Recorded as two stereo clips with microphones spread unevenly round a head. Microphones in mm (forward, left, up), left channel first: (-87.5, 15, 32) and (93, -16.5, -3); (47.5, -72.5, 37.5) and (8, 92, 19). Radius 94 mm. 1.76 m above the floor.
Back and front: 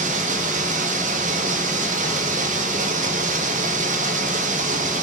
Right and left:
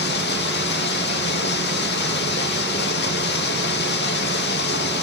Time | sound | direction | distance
0.0 | running water | 60° right | 2.5 m